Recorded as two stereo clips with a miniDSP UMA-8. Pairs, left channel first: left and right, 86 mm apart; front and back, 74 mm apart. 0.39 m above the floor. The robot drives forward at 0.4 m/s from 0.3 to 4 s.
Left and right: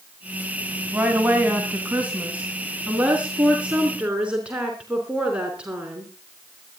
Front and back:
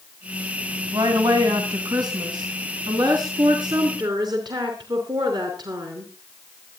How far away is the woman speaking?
About 2.5 m.